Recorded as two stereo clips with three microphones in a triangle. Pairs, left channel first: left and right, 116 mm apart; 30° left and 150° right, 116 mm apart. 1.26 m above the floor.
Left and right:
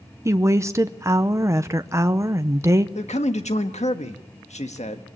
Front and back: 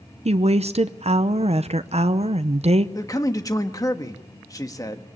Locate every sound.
0.2 s a woman speaking: 155° right, 0.8 m
3.0 s a man speaking: 90° left, 1.4 m